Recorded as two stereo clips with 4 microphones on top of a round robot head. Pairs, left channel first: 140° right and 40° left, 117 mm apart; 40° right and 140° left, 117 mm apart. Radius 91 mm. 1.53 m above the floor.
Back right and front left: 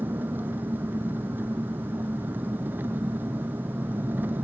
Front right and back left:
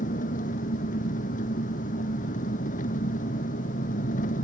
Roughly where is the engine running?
Ahead right.